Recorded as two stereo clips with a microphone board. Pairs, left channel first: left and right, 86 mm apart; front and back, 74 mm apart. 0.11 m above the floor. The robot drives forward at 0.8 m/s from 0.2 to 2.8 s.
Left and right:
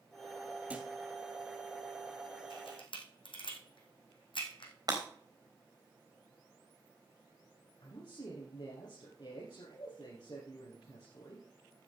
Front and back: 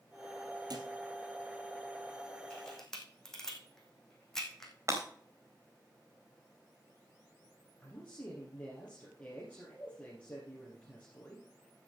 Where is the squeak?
I don't hear a squeak.